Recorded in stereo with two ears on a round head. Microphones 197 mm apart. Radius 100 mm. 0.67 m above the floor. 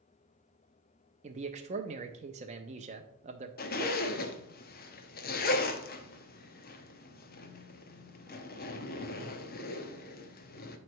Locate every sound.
1.2 s a man speaking: 30° right (ahead or behind), 0.6 m
3.6 s a zipper: 45° left (ahead or behind), 0.8 m